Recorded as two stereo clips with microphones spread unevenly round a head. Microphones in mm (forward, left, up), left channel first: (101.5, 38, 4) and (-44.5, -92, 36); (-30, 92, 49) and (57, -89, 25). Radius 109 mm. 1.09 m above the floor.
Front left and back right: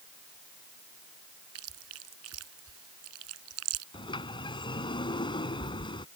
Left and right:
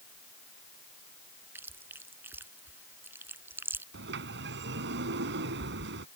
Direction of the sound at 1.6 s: 145° right.